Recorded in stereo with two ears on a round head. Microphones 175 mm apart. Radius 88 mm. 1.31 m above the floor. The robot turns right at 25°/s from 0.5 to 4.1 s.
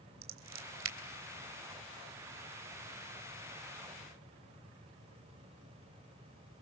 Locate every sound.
0.2 s scissors: 75° right (ahead or behind), 3 m